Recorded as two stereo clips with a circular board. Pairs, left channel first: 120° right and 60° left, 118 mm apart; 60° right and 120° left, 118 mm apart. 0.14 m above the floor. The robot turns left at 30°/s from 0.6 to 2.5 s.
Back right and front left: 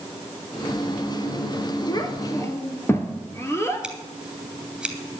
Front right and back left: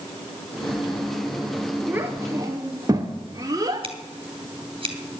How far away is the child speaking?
About 1.4 m.